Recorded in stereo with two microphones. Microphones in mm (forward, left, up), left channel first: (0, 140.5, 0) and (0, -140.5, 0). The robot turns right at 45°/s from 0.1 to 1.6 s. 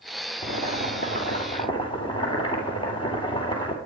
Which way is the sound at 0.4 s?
105° left.